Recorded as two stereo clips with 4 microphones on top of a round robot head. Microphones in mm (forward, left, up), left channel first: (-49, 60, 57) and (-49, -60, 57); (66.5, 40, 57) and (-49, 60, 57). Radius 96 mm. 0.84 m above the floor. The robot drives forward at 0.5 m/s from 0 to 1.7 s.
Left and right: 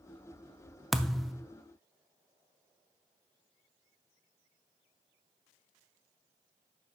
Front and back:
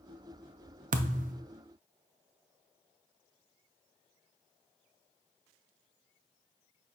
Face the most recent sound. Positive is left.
turn(degrees=180)